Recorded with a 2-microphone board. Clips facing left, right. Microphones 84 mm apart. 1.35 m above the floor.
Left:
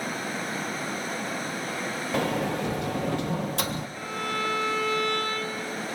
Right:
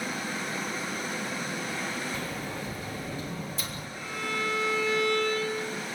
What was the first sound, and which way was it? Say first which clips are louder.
A sliding door: left 9 dB; 75° left (ahead or behind).